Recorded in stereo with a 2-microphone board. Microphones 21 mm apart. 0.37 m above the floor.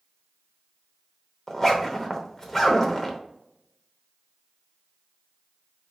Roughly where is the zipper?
Centre.